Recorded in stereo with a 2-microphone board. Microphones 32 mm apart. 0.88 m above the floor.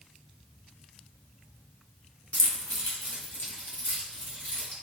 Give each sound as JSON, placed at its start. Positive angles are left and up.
{"t": 2.3, "sound": "keys jangling", "side_deg": 50, "distance_m": 0.5}